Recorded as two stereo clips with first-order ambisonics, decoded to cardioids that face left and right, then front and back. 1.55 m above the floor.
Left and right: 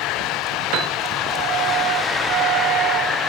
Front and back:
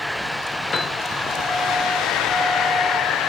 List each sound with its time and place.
0.7 s a piano: 70° right, 0.5 m